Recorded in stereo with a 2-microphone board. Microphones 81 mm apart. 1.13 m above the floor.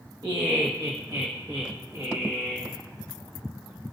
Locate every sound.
0.2 s laughter: 70° right (ahead or behind), 1.3 m; by 2.7 s 40° right (ahead or behind), 2.5 m